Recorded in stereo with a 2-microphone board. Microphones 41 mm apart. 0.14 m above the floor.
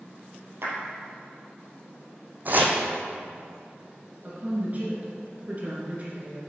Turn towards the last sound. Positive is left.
turn(degrees=-40)  # may be behind; listen again after turning